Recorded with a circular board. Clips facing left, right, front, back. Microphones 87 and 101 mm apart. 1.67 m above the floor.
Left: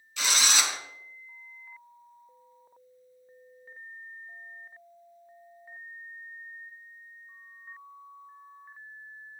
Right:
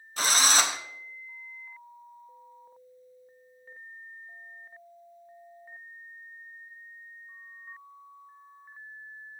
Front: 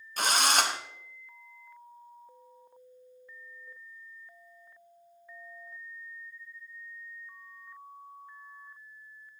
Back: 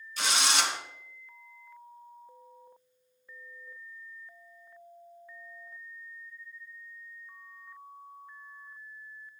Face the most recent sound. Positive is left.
turn(degrees=-40)